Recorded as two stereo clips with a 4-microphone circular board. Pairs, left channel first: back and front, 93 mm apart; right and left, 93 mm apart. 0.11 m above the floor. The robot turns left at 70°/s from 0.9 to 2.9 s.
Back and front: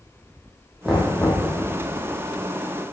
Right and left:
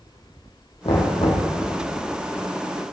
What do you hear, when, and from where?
0.8 s knocking: 90° right, 4 m; by 1.5 s 125° right, 4 m